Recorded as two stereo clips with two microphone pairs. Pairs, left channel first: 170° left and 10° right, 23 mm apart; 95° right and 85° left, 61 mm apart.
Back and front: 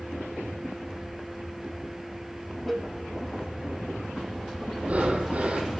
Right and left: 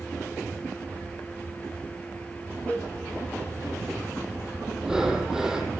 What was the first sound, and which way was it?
A cowbell, 95° right.